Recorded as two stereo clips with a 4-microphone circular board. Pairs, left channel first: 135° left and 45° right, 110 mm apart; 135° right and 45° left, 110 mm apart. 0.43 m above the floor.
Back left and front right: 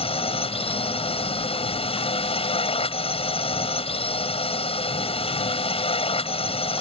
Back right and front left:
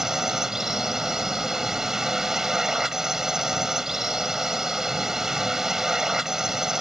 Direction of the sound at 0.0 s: 130° left.